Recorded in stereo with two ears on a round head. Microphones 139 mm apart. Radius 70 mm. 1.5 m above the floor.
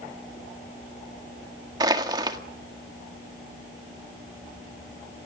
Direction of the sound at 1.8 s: 25° right (ahead or behind).